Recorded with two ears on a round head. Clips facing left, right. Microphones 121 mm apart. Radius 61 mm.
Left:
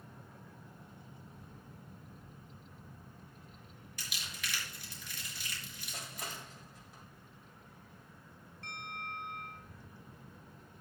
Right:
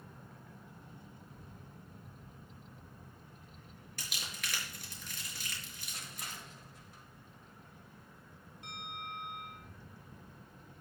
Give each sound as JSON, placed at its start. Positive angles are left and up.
{"t": 4.0, "sound": "crumpling", "side_deg": -40, "distance_m": 4.0}
{"t": 5.9, "sound": "crushing", "side_deg": 65, "distance_m": 2.5}
{"t": 8.6, "sound": "a bell", "side_deg": -10, "distance_m": 4.5}